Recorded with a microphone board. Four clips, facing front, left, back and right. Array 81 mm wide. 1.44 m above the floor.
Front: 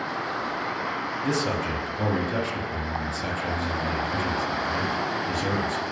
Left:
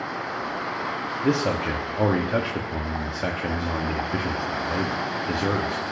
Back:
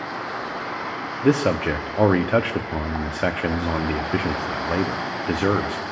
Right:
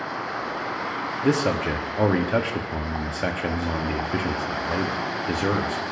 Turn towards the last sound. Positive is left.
turn(degrees=-170)